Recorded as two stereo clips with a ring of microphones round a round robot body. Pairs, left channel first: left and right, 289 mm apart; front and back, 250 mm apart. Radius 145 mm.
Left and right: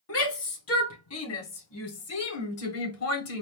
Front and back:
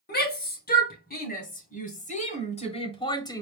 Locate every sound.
0.1 s a shout: 50° left, 2.5 m; by 3.4 s 75° left, 1.3 m